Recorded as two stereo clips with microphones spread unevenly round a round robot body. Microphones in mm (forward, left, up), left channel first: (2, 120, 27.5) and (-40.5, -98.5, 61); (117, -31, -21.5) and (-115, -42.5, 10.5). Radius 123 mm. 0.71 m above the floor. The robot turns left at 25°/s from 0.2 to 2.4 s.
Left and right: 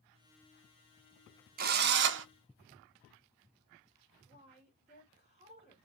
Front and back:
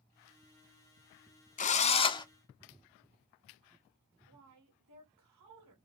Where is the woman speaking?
165° right, 3 m.